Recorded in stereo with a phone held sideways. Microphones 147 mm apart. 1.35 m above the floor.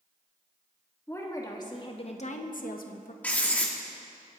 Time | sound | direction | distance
1.1 | a woman speaking | 20° left (ahead or behind) | 2.5 m
3.2 | writing | 10° left (ahead or behind) | 1.7 m